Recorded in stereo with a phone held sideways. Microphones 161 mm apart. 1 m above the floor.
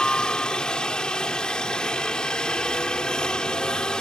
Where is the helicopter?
5° left (ahead or behind).